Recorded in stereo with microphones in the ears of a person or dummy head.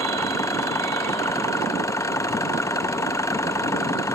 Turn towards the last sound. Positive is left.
turn(degrees=15)  # may be behind; listen again after turning